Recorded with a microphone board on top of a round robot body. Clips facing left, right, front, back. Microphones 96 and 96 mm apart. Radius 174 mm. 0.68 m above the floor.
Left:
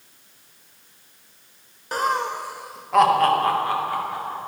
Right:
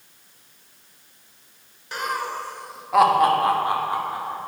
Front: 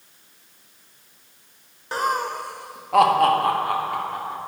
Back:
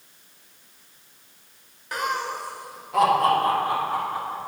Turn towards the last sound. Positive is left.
turn(degrees=-25)